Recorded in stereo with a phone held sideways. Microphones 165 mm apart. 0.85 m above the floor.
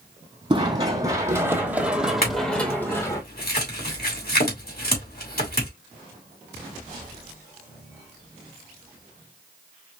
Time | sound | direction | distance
0.5 | running footsteps | 30° right (ahead or behind) | 1.9 m
2.2 | a clink | 70° left (ahead or behind) | 2 m